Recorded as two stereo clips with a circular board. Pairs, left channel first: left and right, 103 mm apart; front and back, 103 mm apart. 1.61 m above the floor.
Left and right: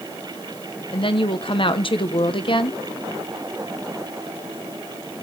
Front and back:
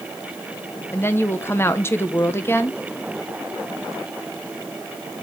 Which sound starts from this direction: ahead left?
A woman speaking, at 0.9 s.